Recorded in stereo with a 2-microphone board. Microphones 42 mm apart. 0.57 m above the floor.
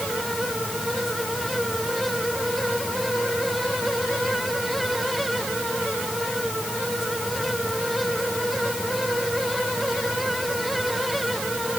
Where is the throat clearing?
I don't hear throat clearing.